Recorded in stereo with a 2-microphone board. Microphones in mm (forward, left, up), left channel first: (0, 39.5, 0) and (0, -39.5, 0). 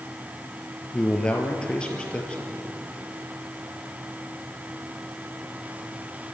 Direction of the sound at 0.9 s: 15° left (ahead or behind).